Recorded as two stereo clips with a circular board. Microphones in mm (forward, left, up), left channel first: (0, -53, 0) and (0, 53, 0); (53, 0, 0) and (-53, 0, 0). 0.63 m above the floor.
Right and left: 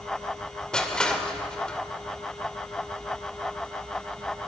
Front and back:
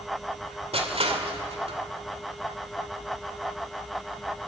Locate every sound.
0.7 s crushing: 170° right, 2 m